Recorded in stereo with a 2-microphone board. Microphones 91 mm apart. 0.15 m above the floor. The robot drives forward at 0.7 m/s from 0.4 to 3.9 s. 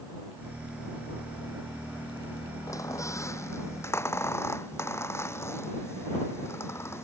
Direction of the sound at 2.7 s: 35° left (ahead or behind).